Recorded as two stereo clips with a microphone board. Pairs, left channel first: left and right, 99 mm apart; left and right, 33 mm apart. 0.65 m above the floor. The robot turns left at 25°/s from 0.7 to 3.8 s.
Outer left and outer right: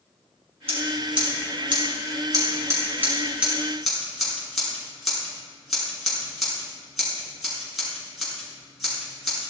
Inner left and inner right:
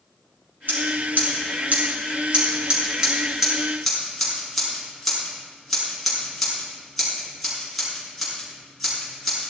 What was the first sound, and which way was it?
Scissors, 75° right (ahead or behind).